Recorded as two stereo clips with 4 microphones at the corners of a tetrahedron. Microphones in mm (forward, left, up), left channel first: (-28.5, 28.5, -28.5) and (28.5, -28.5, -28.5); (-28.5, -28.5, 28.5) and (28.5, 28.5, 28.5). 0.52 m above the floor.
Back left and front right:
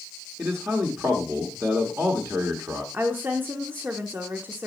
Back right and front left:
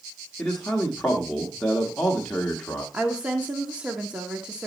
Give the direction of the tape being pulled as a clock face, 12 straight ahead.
I don't hear tape being pulled.